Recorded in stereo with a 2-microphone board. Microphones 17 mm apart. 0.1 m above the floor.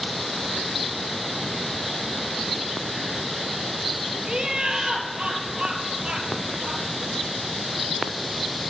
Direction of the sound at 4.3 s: 50° right (ahead or behind).